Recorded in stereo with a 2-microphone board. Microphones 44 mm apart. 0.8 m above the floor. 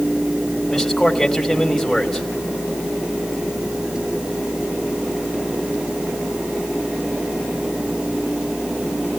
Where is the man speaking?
Centre (ahead or behind), 3.5 m.